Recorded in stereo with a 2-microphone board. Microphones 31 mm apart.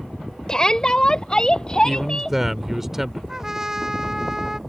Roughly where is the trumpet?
Centre.